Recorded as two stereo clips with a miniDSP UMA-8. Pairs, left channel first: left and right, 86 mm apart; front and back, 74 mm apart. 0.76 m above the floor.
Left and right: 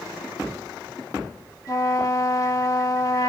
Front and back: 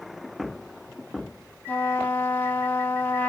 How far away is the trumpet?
About 0.8 m.